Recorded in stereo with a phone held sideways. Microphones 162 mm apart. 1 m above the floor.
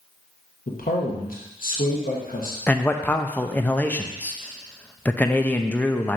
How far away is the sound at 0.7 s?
About 1.0 m.